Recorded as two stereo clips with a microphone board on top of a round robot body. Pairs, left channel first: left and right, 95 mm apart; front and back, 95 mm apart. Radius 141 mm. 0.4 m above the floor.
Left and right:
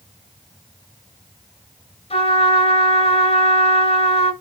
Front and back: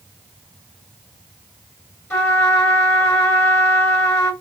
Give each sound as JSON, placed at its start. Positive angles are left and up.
{"t": 2.1, "sound": "a trumpet", "azimuth_deg": 65, "distance_m": 7.0}